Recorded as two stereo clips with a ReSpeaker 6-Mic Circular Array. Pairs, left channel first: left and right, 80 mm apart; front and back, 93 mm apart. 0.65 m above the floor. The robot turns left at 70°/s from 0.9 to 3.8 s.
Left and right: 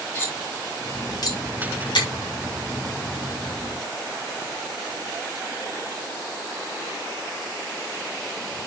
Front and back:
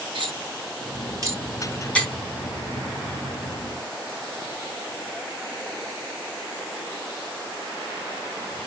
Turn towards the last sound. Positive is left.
turn(degrees=-55)